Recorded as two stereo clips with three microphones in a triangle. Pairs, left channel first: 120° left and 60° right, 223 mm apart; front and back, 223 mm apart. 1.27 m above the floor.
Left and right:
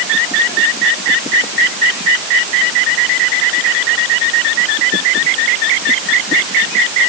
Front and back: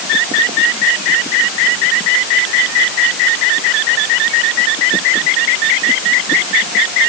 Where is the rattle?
I don't hear a rattle.